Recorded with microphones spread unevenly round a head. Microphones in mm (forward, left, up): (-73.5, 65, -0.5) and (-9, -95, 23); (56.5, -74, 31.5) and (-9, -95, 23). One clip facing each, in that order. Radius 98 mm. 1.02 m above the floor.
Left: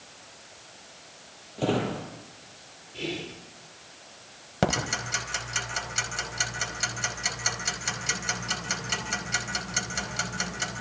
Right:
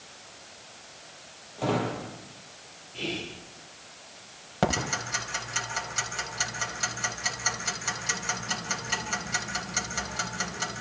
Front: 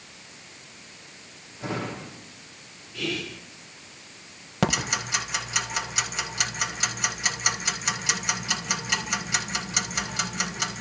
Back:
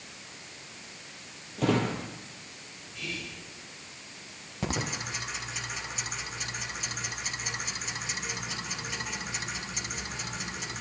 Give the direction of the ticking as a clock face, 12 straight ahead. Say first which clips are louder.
Even, front 7 dB; 11 o'clock.